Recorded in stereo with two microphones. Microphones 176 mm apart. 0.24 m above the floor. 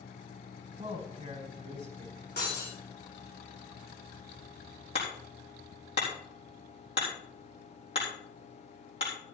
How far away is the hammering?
About 4.5 m.